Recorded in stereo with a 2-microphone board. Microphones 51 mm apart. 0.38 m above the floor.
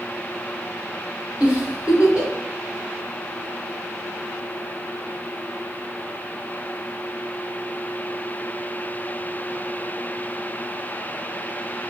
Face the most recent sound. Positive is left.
turn(degrees=-15)  # may be behind; listen again after turning